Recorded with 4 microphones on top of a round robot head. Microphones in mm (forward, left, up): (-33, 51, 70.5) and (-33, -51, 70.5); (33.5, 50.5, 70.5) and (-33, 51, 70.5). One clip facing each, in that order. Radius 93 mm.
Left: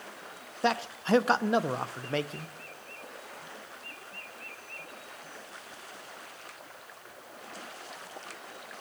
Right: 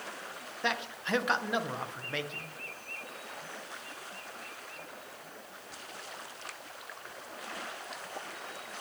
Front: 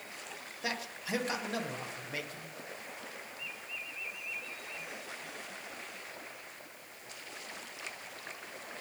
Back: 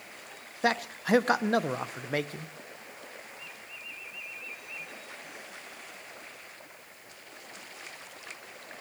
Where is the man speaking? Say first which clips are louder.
Left 6 dB, back 11 dB; 145° left, 0.8 m.